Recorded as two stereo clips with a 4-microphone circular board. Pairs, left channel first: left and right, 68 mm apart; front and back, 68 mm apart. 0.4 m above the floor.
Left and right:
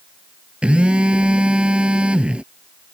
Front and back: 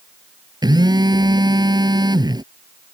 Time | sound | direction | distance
0.6 | a phone buzzing | 165° right | ?